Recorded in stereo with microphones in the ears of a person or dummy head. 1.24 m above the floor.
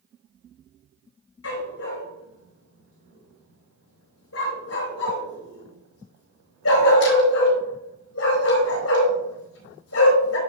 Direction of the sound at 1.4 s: 80° left.